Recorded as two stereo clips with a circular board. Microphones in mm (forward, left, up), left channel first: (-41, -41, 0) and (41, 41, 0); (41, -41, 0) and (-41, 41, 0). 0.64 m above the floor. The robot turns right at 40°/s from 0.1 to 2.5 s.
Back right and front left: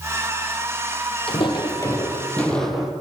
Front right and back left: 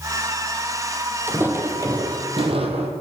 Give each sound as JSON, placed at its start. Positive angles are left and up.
{"t": 1.3, "sound": "footsteps", "azimuth_deg": -160, "distance_m": 1.1}